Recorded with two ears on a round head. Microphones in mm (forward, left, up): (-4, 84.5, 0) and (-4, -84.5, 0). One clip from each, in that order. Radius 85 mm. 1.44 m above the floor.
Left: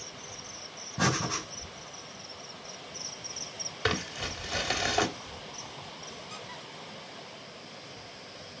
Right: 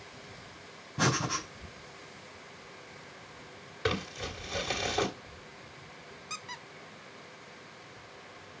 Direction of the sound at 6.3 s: 45° right (ahead or behind).